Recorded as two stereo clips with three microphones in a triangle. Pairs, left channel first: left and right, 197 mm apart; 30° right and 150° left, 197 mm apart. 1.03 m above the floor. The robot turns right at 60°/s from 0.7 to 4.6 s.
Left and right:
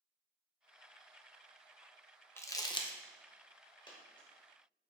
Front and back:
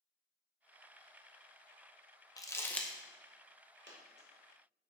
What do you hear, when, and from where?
2.4 s crumpling: 25° left, 0.7 m; by 2.9 s 55° left, 0.7 m
3.9 s a dropped coin: 155° left, 1.3 m; by 4.3 s straight behind, 1.3 m